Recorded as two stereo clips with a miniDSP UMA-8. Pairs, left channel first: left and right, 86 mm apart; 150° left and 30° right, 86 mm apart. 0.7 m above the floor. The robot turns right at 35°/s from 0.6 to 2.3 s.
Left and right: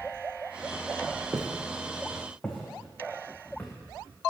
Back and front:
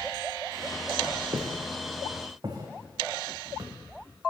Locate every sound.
1.3 s footsteps: 30° right, 2 m; by 3.7 s 20° left, 3.5 m